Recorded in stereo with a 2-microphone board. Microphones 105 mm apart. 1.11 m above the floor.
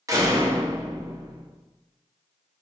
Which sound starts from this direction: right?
A door slam, at 0.1 s.